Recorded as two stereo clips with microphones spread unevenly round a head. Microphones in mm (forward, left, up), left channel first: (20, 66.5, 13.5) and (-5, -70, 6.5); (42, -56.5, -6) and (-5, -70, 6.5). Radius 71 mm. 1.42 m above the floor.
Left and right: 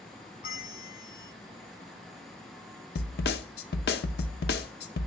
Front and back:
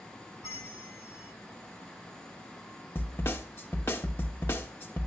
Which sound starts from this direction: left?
A snare drum, at 3.0 s.